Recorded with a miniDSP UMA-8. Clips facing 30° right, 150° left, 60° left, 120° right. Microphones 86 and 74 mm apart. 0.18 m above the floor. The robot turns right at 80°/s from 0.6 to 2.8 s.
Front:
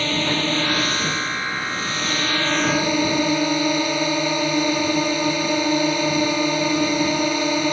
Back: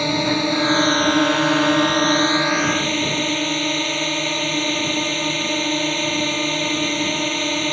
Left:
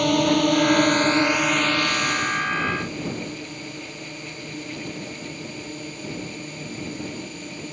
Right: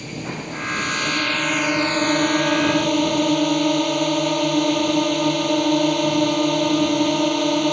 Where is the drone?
75° left; by 7.7 s 110° right.